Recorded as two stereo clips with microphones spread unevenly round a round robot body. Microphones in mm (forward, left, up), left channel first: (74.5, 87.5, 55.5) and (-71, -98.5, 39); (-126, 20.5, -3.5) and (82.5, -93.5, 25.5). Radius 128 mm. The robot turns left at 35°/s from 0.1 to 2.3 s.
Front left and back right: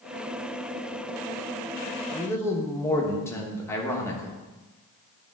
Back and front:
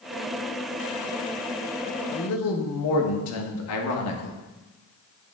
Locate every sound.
2.1 s a man speaking: 140° left, 1.0 m; by 4.4 s 135° left, 1.0 m